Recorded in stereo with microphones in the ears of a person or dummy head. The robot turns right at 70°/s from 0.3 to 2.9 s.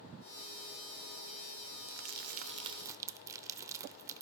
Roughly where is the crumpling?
Right.